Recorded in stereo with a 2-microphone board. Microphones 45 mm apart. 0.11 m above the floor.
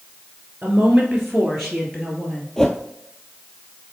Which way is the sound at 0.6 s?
20° right (ahead or behind).